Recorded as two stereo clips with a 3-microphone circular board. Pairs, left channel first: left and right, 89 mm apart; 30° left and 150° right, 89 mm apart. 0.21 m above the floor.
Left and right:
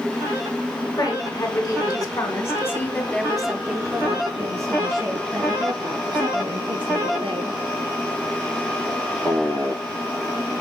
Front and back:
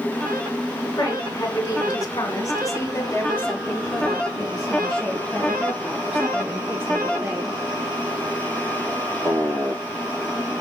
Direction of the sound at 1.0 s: 70° left.